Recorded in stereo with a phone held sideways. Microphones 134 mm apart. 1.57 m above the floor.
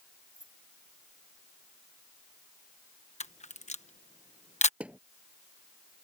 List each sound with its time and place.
0.3 s keys jangling: 75° right (ahead or behind)
3.2 s a camera shutter: 60° left (ahead or behind)
4.8 s a thud: 10° right (ahead or behind)